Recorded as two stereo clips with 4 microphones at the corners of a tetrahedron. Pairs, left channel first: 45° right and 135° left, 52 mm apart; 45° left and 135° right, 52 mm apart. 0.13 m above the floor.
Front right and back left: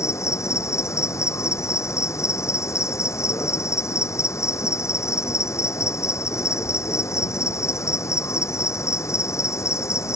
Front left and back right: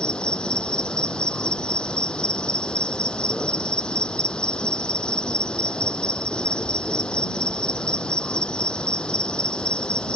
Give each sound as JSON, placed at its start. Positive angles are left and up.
{"t": 0.0, "sound": "an insect", "azimuth_deg": -25}